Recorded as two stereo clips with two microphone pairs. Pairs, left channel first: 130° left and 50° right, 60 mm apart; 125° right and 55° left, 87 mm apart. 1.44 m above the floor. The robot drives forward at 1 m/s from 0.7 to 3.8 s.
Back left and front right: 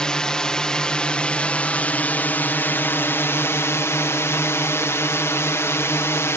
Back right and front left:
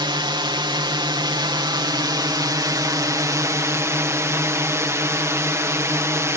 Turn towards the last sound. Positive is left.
turn(degrees=100)